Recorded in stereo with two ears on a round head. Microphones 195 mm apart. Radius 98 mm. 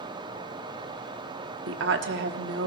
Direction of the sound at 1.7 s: 55° right (ahead or behind).